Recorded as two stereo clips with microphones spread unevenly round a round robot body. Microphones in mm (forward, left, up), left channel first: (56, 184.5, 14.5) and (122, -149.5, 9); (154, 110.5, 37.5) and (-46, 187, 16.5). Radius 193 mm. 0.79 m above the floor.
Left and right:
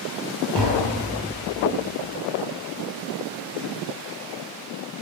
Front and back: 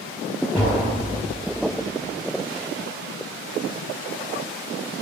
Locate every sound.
0.6 s tapping: 110° right, 5.5 m